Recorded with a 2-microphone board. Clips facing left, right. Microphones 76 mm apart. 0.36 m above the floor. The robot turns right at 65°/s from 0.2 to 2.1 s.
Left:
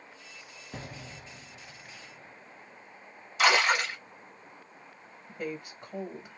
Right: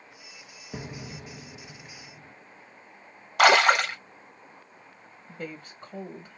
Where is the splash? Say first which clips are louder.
Right 6 dB; 65° right (ahead or behind), 0.8 m.